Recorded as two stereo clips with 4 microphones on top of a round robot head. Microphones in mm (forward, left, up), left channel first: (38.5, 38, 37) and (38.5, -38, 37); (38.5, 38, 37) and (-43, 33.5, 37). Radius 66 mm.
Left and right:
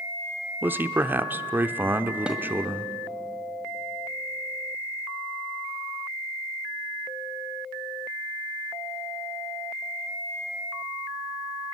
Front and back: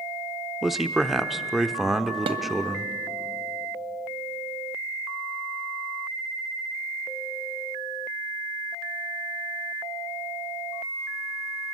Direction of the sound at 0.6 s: 90° right.